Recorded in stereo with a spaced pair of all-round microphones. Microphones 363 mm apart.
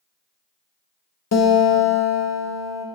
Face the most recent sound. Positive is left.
turn(degrees=45)  # may be behind; listen again after turning